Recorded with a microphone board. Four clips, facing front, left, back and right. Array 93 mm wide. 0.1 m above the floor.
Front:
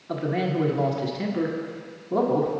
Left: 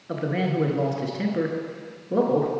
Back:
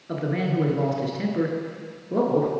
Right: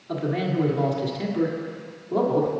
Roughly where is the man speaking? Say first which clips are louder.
Even, even; left.